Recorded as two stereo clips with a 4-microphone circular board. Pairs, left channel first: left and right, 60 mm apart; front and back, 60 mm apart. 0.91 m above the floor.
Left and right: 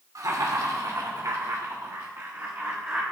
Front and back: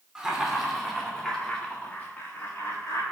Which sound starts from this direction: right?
Laughter, at 0.1 s.